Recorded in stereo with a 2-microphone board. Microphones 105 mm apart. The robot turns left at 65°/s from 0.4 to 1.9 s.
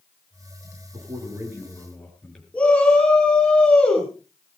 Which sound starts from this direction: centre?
A shout, at 2.5 s.